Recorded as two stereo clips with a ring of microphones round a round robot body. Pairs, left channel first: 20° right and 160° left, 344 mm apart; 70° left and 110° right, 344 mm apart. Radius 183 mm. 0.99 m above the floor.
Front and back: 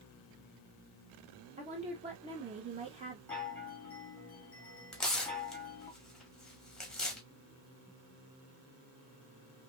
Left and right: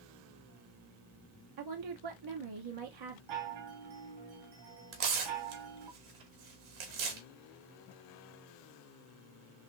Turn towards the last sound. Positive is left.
turn(degrees=-110)